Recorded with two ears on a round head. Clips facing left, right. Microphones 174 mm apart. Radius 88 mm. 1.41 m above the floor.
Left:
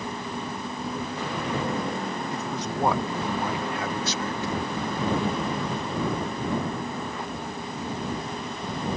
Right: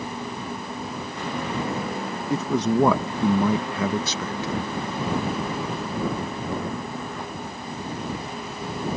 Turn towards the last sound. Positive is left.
turn(degrees=-60)  # may be behind; listen again after turning